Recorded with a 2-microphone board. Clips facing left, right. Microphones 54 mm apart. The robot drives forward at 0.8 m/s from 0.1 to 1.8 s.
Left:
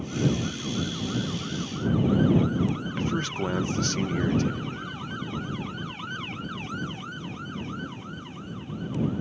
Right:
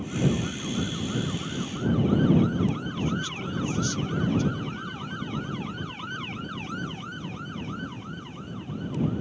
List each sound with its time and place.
3.0 s a man speaking: 60° left (ahead or behind)